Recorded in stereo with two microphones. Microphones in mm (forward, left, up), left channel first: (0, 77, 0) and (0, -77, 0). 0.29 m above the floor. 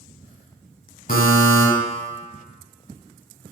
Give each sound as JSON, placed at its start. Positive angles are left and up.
{"t": 1.1, "sound": "a buzzer", "side_deg": 65, "distance_m": 1.0}